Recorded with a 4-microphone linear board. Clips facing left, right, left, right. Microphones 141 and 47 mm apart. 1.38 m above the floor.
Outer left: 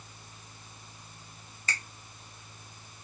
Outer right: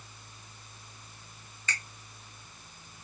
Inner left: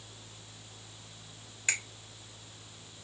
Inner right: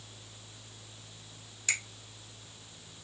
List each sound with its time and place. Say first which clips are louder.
1.7 s a finger snap: outer left 1 dB, even; 35° left (ahead or behind), 1.9 m